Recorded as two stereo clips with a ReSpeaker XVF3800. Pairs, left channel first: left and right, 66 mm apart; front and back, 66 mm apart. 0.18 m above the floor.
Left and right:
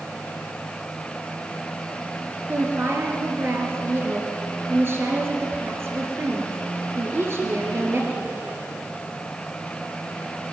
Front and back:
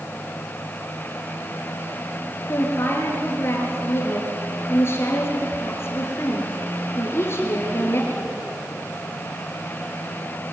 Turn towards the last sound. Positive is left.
turn(degrees=-45)